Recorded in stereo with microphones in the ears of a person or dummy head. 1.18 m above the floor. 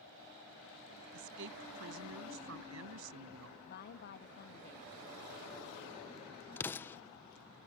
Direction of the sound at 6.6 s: 10° left (ahead or behind).